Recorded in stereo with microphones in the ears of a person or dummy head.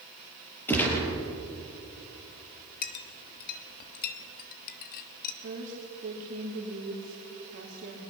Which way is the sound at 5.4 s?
50° right (ahead or behind).